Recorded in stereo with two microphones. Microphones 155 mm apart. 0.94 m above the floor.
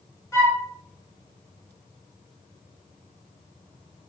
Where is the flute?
20° left (ahead or behind), 0.9 m.